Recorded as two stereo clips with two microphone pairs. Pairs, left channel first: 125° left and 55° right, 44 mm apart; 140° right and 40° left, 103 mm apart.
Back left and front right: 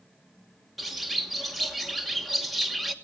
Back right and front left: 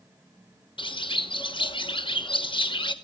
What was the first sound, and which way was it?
A bird, 145° right.